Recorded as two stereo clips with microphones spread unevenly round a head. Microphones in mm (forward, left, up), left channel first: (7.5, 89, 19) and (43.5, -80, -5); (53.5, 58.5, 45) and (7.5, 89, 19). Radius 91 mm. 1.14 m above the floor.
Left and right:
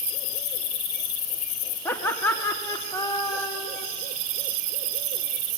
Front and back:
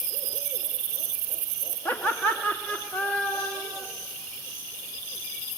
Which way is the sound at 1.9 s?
20° left.